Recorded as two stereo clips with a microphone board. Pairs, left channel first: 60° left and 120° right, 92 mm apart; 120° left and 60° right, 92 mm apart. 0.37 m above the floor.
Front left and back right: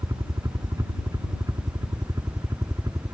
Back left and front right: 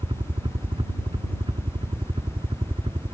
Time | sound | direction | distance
0.0 | a helicopter | 75° right | ?